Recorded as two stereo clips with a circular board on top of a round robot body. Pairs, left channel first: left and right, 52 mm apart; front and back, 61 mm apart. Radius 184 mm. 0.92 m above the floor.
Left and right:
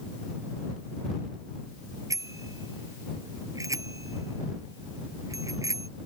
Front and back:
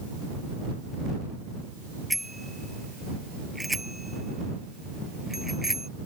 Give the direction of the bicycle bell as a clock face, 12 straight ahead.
3 o'clock.